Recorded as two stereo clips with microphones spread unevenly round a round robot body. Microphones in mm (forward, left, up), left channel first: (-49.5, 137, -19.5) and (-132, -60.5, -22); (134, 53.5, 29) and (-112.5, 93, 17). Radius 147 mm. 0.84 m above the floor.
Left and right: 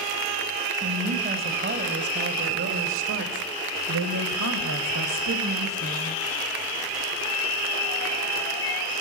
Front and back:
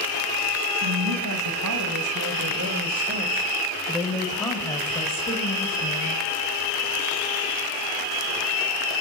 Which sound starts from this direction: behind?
A woman speaking, at 0.8 s.